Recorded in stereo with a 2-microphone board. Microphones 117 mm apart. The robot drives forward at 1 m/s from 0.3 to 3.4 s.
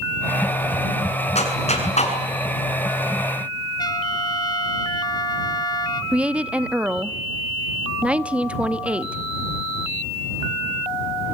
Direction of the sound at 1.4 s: 65° left (ahead or behind).